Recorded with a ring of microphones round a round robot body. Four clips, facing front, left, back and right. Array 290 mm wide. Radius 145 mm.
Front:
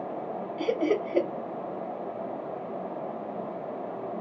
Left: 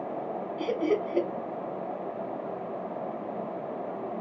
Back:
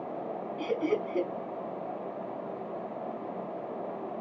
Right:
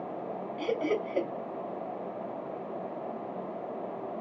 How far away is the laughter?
About 2.5 m.